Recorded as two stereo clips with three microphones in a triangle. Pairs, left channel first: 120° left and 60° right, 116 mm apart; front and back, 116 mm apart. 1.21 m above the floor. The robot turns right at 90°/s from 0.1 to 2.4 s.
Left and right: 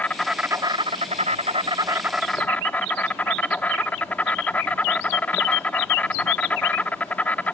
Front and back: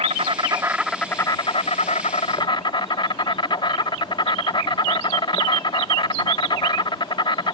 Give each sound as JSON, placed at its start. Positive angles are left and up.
{"t": 0.0, "sound": "an insect", "azimuth_deg": -165}